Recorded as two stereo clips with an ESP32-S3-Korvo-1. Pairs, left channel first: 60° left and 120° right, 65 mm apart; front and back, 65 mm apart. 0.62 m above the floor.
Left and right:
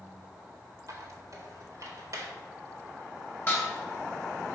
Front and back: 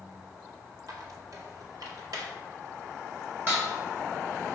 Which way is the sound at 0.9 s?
155° right.